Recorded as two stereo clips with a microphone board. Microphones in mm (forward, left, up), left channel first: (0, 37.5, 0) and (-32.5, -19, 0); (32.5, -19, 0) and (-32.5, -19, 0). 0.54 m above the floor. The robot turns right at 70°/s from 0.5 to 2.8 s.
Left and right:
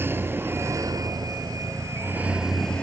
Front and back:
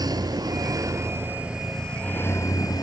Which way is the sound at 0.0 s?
175° right.